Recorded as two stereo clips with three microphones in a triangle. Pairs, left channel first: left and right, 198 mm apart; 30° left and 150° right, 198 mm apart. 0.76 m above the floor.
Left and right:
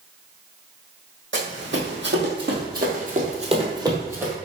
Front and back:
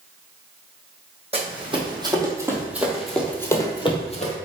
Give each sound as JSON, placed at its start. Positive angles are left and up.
{"t": 1.3, "sound": "running footsteps", "azimuth_deg": -90, "distance_m": 1.7}